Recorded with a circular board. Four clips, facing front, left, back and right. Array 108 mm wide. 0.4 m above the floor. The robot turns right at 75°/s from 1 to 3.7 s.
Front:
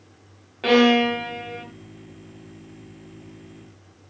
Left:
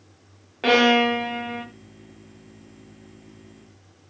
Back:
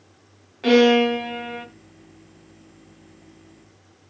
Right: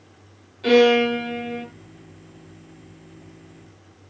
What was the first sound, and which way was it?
A violin, 70° left.